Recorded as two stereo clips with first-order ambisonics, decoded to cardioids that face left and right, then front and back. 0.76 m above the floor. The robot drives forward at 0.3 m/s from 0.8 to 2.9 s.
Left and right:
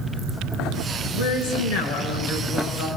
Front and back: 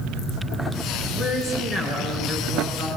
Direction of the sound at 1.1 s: 110° left.